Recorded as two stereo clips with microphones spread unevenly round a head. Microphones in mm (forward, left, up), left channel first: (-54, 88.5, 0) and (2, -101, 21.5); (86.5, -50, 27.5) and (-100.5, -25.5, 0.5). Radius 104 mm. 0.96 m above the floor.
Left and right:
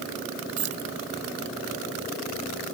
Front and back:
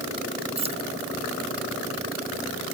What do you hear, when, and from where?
0.6 s keys jangling: 125° right